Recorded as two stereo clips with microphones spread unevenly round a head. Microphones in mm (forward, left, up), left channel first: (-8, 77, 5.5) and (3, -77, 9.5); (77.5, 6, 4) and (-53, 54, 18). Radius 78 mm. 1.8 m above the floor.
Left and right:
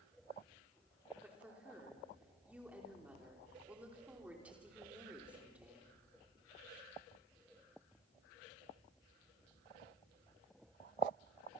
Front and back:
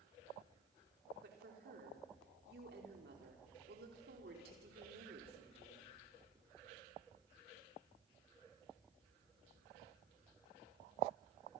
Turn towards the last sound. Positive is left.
turn(degrees=-170)